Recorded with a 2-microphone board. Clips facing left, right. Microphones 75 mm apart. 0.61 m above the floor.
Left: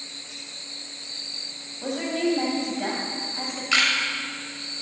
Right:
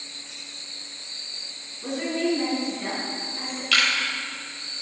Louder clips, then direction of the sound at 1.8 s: Even; 80° left.